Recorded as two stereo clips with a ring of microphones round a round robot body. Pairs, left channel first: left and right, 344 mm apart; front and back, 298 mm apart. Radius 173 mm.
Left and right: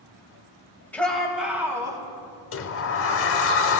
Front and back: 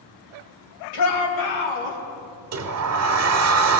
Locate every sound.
0.9 s a shout: 5° left, 2.5 m; by 2.0 s 10° right, 2.5 m
2.5 s a sliding door: 145° left, 0.9 m